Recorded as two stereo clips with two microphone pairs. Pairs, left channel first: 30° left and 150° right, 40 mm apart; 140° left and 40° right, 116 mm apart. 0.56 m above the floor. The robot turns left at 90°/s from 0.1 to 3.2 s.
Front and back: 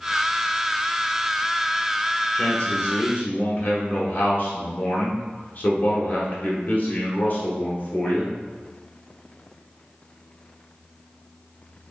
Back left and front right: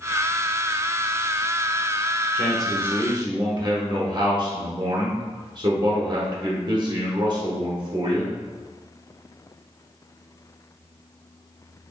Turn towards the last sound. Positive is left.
turn(degrees=0)